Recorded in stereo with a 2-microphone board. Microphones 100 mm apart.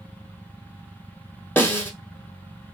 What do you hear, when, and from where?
1.6 s a snare drum: 15° left (ahead or behind), 1.2 m